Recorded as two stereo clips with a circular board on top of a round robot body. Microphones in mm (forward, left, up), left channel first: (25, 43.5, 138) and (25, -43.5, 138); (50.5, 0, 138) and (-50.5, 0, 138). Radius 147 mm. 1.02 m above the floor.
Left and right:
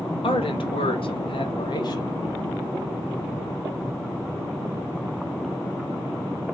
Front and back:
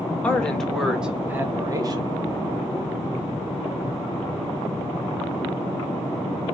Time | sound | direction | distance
0.2 | a man speaking | 80° left | 1.7 m